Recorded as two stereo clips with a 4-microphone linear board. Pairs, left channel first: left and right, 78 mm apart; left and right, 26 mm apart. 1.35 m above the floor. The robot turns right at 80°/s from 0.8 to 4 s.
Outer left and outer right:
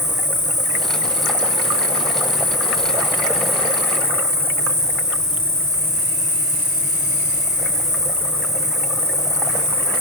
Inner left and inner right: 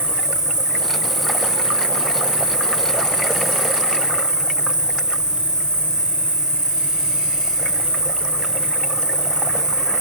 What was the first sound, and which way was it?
An insect, 35° right.